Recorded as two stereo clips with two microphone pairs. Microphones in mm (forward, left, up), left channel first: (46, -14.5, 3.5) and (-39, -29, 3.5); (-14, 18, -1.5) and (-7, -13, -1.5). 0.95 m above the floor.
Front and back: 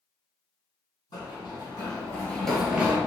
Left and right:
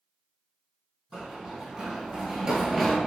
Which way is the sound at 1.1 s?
20° right.